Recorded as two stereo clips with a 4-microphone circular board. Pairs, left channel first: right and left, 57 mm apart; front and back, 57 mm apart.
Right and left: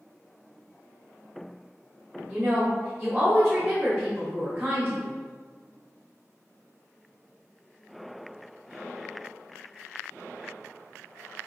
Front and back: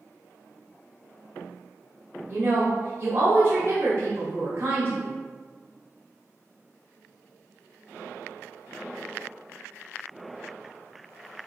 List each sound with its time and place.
2.3 s a woman speaking: 170° left, 1.1 m